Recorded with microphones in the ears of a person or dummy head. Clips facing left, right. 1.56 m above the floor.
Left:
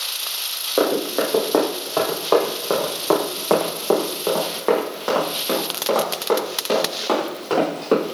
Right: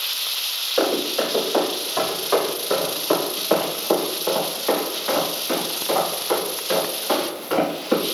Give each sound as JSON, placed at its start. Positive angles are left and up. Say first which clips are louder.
{"t": 0.8, "sound": "running footsteps", "louder": "left 2 dB", "side_deg": 50, "distance_m": 2.5}